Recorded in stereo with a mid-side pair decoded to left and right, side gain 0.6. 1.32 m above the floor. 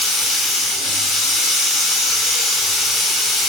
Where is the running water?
55° left, 1.4 m.